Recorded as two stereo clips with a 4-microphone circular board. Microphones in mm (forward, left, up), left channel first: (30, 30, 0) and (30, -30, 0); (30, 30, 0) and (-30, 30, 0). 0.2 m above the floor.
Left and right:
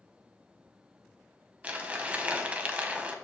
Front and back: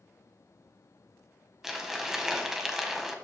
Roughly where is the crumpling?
Right.